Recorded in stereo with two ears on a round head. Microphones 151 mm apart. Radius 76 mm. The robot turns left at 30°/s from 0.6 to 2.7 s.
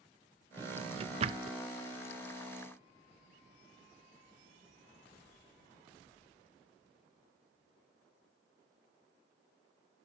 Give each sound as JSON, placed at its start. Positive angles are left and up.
{"t": 0.6, "sound": "a drawer", "side_deg": -20, "distance_m": 0.6}